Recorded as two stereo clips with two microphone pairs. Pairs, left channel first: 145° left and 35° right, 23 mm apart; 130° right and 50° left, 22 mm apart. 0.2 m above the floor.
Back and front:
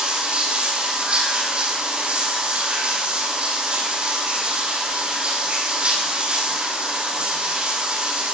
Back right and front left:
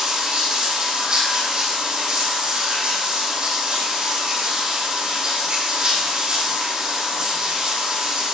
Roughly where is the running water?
Ahead.